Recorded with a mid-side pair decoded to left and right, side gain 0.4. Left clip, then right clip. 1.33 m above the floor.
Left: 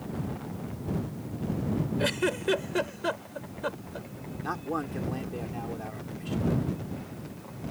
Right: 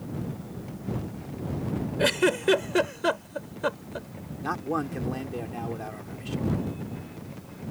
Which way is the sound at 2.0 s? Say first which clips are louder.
Right 6 dB; 40° right.